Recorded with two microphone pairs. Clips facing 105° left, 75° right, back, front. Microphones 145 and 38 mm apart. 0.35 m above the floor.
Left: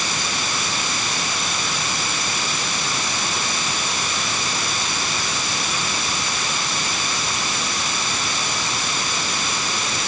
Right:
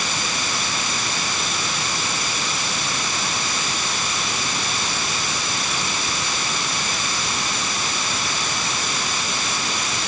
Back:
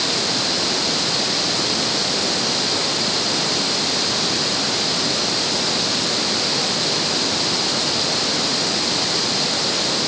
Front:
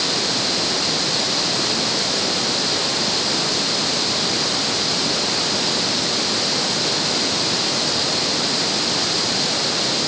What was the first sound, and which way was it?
Only background noise.